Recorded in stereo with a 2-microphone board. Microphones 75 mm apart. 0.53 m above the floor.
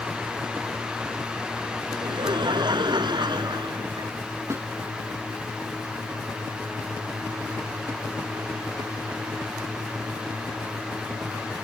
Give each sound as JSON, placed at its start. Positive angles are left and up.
{"t": 1.9, "sound": "laughter", "side_deg": -80}
{"t": 4.5, "sound": "a snare drum", "side_deg": -40}